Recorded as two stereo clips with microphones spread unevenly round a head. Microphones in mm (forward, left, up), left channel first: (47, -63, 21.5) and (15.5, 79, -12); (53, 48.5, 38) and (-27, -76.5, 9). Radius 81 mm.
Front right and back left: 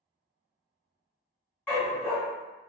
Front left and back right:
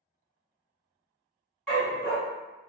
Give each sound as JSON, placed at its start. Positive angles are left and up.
{"t": 1.7, "sound": "a dog barking", "azimuth_deg": -15, "distance_m": 1.3}